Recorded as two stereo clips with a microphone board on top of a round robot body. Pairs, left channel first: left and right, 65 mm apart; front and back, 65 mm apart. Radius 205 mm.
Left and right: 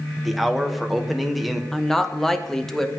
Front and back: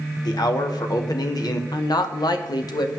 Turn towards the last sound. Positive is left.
turn(degrees=5)